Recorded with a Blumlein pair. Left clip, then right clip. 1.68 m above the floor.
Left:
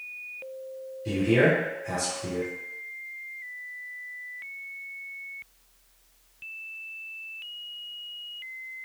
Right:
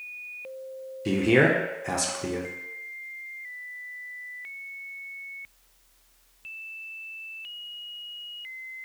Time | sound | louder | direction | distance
1.1 | a man speaking | right 1 dB | 65° right | 0.5 m